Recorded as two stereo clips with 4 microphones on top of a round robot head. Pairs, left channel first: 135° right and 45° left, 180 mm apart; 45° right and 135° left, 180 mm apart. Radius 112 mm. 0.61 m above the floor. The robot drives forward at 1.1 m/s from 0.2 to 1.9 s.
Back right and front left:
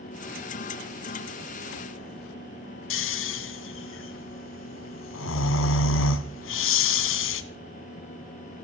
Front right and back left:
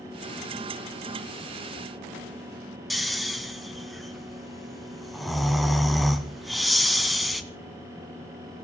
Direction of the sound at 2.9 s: 135° right.